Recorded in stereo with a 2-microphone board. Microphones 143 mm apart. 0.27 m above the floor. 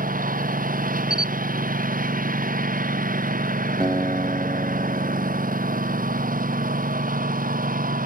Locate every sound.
0.0 s a lawn mower: 80° right
1.1 s a camera shutter: 80° left
3.8 s a guitar: 30° right (ahead or behind)